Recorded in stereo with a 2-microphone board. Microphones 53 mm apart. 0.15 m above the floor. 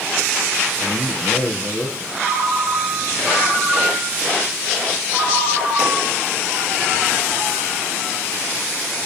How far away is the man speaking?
About 3.5 m.